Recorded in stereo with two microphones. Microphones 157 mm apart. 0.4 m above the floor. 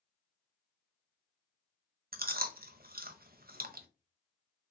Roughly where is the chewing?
Right.